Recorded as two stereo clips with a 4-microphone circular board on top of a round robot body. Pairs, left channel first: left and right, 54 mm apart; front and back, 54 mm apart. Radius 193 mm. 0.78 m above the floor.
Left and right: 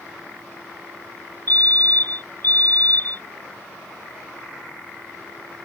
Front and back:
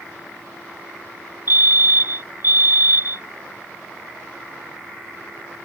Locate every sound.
1.5 s a fire alarm: 140° left